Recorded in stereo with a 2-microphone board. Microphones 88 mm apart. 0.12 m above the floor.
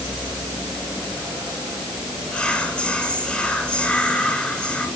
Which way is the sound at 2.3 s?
10° left (ahead or behind).